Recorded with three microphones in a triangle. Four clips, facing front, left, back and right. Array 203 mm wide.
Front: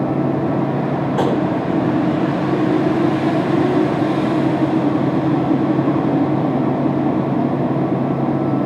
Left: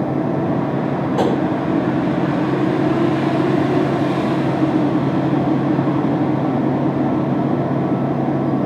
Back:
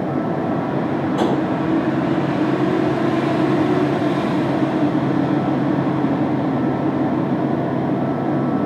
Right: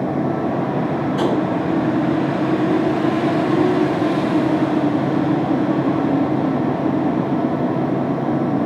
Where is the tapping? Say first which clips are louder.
Left 3 dB, front 1 dB; 40° left, 5 m.